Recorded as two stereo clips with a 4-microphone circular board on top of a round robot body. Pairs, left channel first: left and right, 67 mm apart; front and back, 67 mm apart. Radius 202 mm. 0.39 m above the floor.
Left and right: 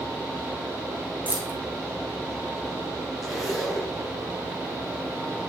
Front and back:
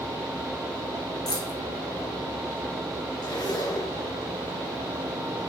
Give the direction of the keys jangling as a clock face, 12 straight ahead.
1 o'clock.